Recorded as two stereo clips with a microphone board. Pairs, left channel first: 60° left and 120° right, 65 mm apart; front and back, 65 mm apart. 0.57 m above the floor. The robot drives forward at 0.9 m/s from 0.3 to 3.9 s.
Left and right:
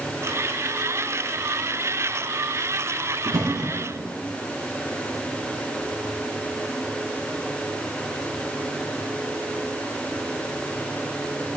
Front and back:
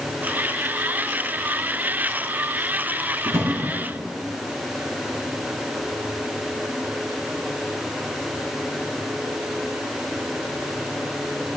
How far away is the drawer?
About 4.5 m.